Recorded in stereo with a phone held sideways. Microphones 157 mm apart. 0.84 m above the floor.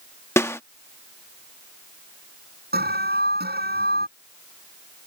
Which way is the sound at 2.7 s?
85° right.